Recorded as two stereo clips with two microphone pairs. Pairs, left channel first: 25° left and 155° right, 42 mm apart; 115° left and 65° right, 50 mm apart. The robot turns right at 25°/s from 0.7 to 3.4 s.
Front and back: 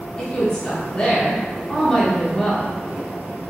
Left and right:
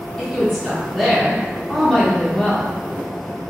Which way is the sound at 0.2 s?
35° left.